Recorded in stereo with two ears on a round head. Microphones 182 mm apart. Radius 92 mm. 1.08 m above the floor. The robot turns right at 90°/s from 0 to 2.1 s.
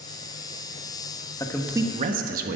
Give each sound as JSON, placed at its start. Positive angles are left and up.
{"t": 1.4, "sound": "a man speaking", "azimuth_deg": 160, "distance_m": 1.2}